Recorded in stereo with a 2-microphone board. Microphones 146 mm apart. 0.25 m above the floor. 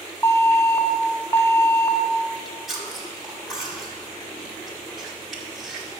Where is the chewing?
Centre (ahead or behind), 1.3 m.